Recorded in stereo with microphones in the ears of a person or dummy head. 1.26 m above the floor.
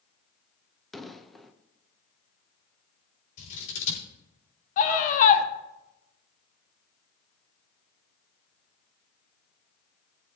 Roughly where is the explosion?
Centre.